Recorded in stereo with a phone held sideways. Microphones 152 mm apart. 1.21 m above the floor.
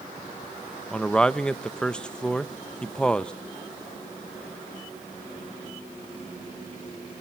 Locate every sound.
0.9 s a man speaking: 5° left (ahead or behind), 0.7 m